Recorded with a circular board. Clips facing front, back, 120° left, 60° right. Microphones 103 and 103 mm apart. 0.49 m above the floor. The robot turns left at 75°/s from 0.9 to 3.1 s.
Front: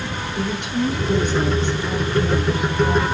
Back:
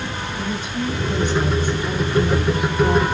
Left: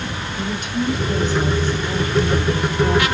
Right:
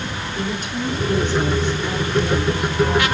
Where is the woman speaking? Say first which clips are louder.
Front 4 dB, left 2 dB; 5° right, 7 m; by 3.0 s 165° right, 7 m.